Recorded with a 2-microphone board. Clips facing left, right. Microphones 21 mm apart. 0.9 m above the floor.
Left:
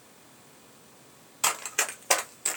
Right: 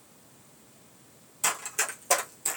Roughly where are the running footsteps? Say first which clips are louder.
Left 2 dB; left.